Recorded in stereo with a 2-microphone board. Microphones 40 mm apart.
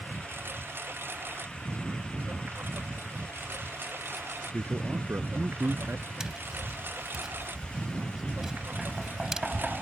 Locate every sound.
0.0 s a lawn mower: 70° right (ahead or behind); by 9.8 s 60° right (ahead or behind)
4.5 s a man speaking: 75° right (ahead or behind)
6.2 s tapping: 15° right (ahead or behind)